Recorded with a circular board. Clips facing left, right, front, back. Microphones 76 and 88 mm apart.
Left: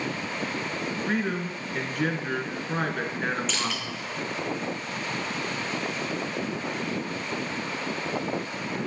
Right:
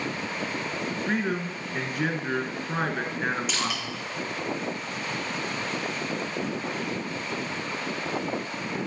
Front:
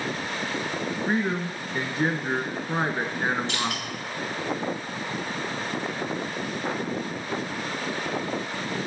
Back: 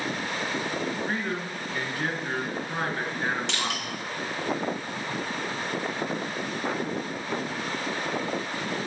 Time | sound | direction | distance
1.1 | a man speaking | 10° right | 1.5 m
3.5 | crushing | 170° right | 2.5 m